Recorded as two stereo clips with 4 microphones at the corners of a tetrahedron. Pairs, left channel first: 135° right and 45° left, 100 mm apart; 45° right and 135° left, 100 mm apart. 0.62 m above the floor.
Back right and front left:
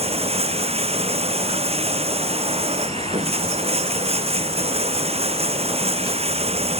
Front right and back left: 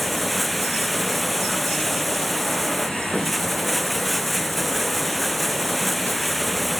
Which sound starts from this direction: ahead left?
Running water, at 0.0 s.